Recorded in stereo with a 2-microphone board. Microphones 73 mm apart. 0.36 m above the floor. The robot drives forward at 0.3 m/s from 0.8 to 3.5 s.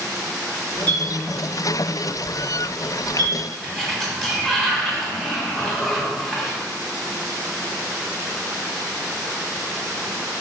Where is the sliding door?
5° left (ahead or behind), 0.7 m.